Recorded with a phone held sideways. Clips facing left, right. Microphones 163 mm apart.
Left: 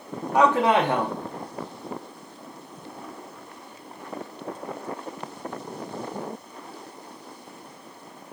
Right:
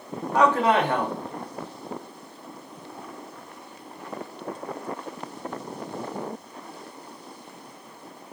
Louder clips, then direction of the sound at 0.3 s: Left 1 dB; 15° left (ahead or behind).